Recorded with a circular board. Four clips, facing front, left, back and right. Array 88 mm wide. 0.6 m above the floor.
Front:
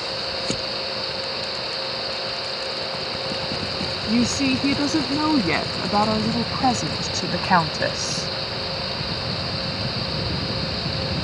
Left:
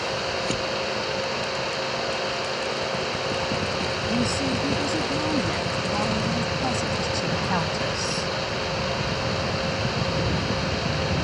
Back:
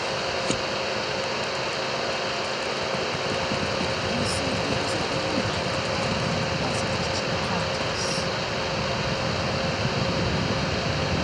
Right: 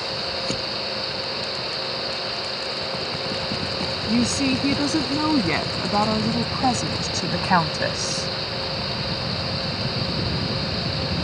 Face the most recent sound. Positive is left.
turn(degrees=-30)